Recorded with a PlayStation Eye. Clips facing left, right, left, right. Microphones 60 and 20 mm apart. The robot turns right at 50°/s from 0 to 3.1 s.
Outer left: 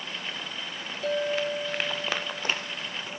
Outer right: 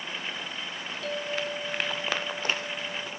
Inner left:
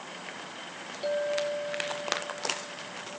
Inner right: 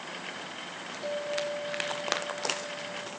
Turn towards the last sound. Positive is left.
turn(degrees=-100)